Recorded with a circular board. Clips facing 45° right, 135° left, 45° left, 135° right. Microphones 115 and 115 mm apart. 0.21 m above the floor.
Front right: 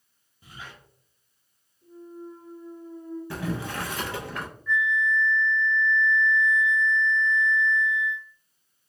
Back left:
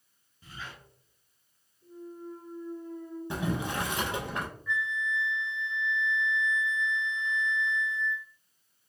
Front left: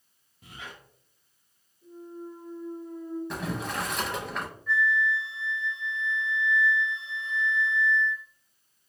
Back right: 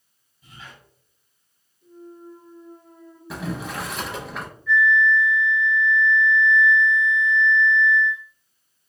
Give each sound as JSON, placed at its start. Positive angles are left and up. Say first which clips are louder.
{"t": 0.4, "sound": "a squeak", "louder": "even, front left 1 dB", "azimuth_deg": 30, "distance_m": 0.7}
{"t": 1.8, "sound": "a clunk", "louder": "front right 1 dB, front left 1 dB", "azimuth_deg": -30, "distance_m": 1.3}
{"t": 3.3, "sound": "boiling", "louder": "back left 1 dB, back right 2 dB", "azimuth_deg": 140, "distance_m": 0.5}
{"t": 4.7, "sound": "a flute", "louder": "front right 10 dB, back right 8 dB", "azimuth_deg": 60, "distance_m": 1.0}